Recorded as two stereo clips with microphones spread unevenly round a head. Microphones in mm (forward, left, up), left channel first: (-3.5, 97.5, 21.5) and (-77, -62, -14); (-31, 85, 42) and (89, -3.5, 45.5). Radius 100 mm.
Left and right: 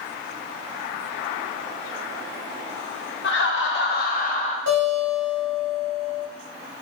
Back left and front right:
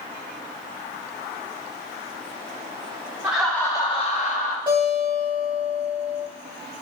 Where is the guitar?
100° right, 1.6 m.